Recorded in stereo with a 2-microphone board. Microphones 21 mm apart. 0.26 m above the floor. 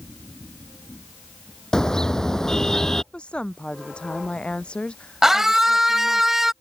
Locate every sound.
1.7 s a car horn: 30° left (ahead or behind); by 3.0 s 25° left (ahead or behind)
3.1 s a woman speaking: 50° left (ahead or behind)
5.2 s a scream: 15° right (ahead or behind)